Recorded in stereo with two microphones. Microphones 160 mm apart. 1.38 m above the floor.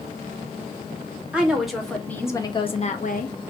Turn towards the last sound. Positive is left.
turn(degrees=65)  # may be behind; listen again after turning